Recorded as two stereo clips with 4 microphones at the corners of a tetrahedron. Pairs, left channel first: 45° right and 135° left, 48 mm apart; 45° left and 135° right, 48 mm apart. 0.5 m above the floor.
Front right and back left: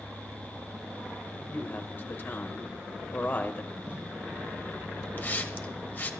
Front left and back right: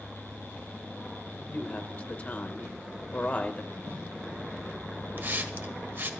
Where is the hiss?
95° right, 1.2 m.